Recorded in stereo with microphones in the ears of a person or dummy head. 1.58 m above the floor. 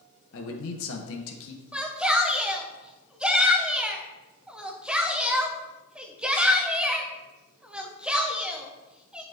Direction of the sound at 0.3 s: 70° left (ahead or behind).